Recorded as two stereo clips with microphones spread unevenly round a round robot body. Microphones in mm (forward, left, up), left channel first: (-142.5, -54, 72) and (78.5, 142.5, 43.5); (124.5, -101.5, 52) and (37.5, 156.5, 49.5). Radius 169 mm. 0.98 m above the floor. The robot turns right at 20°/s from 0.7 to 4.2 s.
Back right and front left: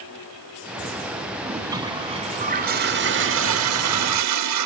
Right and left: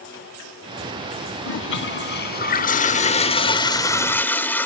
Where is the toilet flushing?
45° right, 0.9 m; by 4.7 s 10° left, 0.9 m.